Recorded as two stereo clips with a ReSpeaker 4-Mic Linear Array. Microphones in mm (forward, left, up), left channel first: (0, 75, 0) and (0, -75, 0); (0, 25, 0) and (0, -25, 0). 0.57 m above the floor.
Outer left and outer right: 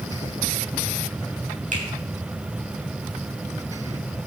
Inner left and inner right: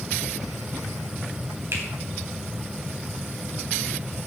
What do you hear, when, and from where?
1.7 s a finger snap: 55° right (ahead or behind), 4 m